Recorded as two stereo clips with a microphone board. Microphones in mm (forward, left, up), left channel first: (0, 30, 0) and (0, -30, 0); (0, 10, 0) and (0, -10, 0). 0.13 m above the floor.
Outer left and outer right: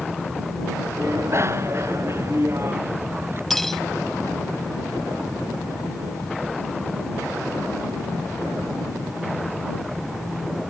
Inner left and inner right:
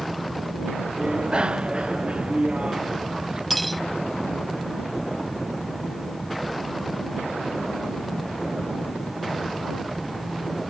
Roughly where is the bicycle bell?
Right.